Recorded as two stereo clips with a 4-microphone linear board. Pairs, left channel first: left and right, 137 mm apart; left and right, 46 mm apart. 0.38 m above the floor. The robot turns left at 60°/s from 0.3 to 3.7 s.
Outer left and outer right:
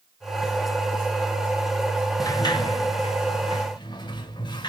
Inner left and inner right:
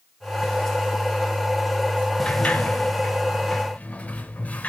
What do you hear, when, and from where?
2.2 s a sliding door: 25° left (ahead or behind), 1.5 m; by 4.7 s 35° left (ahead or behind), 1.5 m